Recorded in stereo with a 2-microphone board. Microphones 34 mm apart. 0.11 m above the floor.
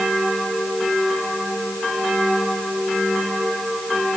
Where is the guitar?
I don't hear a guitar.